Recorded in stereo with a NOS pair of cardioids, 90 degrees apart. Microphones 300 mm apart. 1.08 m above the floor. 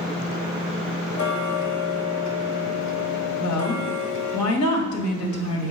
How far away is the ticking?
About 1.6 m.